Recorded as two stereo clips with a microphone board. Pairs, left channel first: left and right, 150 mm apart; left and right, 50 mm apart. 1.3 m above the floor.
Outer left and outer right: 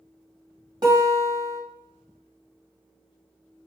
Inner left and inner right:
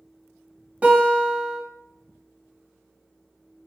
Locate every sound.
0.8 s a guitar: 30° right (ahead or behind), 1.4 m